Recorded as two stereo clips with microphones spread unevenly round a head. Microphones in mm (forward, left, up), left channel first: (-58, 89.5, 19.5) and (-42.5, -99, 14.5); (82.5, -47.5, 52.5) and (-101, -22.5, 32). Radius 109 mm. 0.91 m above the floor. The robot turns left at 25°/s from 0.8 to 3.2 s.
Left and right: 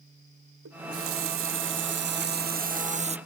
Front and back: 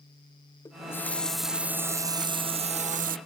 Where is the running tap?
85° right, 0.6 m; by 3.2 s 145° right, 0.6 m.